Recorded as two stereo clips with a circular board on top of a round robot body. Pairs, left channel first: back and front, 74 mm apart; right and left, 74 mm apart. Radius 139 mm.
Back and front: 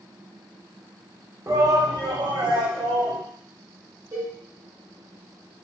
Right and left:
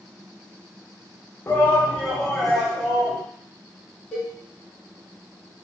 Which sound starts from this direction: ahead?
A cowbell, at 4.1 s.